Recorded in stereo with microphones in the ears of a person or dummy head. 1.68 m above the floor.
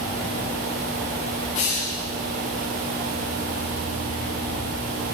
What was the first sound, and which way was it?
A hiss, 45° left (ahead or behind).